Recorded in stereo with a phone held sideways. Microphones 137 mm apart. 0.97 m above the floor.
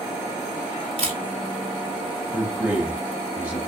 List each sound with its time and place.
1.0 s a camera shutter: 55° right (ahead or behind), 2 m
2.3 s a man speaking: 10° right (ahead or behind), 1.9 m